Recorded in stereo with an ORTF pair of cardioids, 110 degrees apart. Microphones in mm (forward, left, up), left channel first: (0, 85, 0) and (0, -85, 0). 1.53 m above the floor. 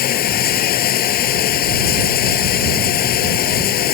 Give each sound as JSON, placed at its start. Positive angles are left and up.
{"t": 0.0, "sound": "running water", "azimuth_deg": 65}